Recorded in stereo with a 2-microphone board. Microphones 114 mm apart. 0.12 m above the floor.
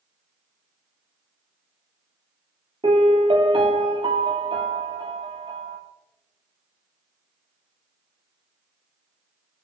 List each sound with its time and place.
2.8 s a piano: 50° right (ahead or behind), 0.9 m